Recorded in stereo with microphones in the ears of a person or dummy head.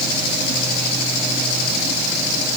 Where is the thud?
No thud in this recording.